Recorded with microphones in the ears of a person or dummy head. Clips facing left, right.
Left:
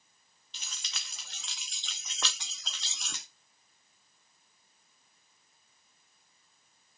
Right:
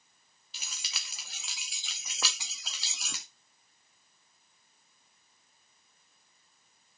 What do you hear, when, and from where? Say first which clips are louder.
0.5 s keys jangling: right 1 dB; 5° right (ahead or behind), 0.5 m